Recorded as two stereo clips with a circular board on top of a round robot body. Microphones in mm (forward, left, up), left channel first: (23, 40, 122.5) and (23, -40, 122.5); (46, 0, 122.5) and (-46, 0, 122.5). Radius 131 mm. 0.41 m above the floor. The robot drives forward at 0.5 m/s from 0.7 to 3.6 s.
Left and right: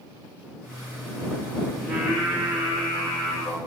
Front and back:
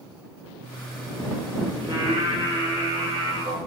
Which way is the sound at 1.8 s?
170° left.